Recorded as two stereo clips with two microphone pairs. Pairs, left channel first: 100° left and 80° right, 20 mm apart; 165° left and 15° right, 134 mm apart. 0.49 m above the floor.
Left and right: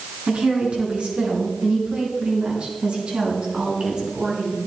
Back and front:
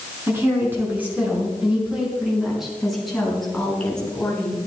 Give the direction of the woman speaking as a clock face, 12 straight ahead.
3 o'clock.